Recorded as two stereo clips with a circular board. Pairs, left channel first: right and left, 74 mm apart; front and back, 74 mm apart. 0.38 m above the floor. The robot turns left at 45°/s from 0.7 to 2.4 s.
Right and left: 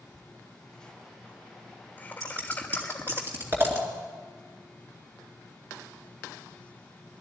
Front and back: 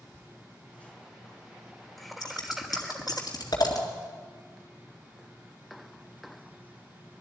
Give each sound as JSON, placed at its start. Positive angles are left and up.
{"t": 0.1, "sound": "laughter", "azimuth_deg": -25, "distance_m": 1.0}
{"t": 2.2, "sound": "scissors", "azimuth_deg": 40, "distance_m": 2.5}